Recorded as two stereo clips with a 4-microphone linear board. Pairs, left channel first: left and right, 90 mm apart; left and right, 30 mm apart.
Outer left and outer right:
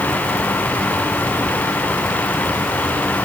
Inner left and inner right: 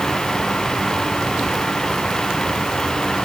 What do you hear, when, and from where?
Only background noise.